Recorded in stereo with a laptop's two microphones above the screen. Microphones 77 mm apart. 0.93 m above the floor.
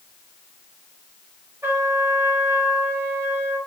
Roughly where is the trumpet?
Right.